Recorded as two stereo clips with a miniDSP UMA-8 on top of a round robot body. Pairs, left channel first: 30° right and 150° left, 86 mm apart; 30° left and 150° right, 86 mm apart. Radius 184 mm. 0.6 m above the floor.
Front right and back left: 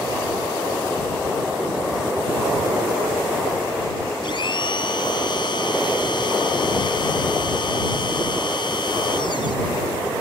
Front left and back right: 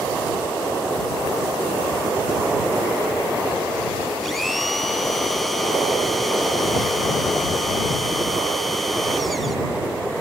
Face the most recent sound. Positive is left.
turn(degrees=-60)